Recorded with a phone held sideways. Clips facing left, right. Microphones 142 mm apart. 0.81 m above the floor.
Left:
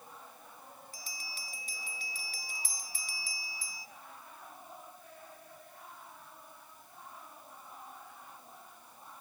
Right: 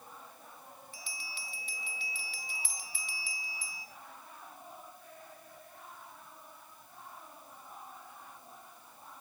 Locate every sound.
0.9 s a bell: 40° left (ahead or behind), 1.4 m